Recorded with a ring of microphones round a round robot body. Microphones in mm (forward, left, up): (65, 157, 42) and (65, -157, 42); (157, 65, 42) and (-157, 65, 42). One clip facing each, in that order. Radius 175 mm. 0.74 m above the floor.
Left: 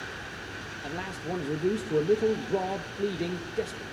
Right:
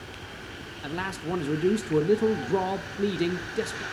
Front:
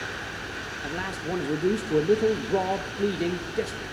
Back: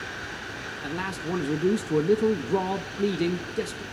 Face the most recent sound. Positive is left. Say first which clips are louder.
# right 3 dB, back 1 dB
turn(degrees=-125)